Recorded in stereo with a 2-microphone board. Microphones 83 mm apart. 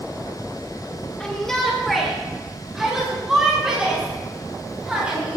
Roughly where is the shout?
Centre.